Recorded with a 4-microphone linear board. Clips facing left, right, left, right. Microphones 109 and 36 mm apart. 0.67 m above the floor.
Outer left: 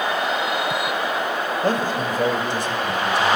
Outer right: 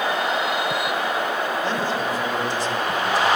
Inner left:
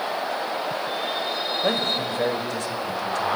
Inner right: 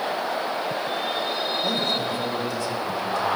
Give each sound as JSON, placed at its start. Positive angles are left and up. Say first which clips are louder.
{"t": 1.6, "sound": "a man speaking", "louder": "outer left 2 dB, inner left 3 dB", "side_deg": 45, "distance_m": 3.5}